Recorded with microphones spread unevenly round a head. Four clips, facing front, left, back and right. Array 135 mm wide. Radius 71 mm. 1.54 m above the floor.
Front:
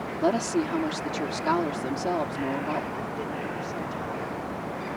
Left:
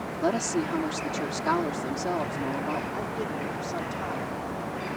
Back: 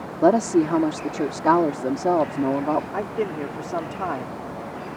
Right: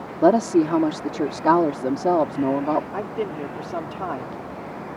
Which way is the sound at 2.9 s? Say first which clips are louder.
Right 4 dB, back 6 dB; 145° right.